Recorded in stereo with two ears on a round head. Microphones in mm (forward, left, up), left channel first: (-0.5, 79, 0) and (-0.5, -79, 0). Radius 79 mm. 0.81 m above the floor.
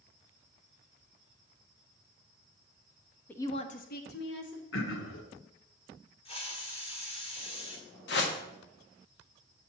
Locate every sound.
3.3 s a woman speaking: 5° left (ahead or behind), 0.8 m; by 4.6 s 70° left (ahead or behind), 1.7 m
4.7 s throat clearing: 75° left (ahead or behind), 1.1 m
6.2 s a hiss: 30° left (ahead or behind), 1.6 m
8.1 s a whoosh: 65° left (ahead or behind), 1.2 m